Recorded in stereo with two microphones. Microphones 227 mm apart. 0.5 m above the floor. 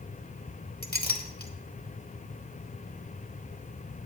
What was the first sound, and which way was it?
A clink, 40° left (ahead or behind).